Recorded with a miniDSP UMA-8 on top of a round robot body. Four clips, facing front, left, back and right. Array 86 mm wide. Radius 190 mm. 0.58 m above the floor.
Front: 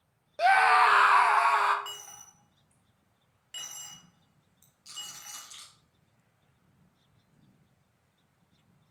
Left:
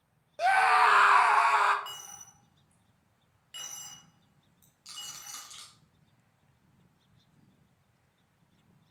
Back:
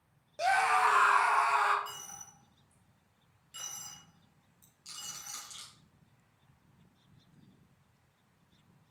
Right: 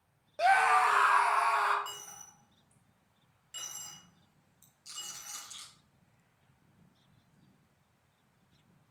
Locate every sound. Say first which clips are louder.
0.4 s a scream: left 2 dB, front 6 dB; 10° right, 0.8 m; by 1.8 s 55° left, 1.5 m
1.9 s a dropped coin: even, even; 20° left, 1.9 m
4.8 s a rattle: left 2 dB, front 1 dB; 100° left, 3 m